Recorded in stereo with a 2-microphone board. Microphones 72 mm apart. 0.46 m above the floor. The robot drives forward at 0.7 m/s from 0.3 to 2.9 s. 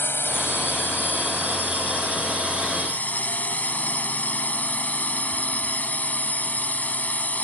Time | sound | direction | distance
0.0 | a drone | 30° left (ahead or behind) | ?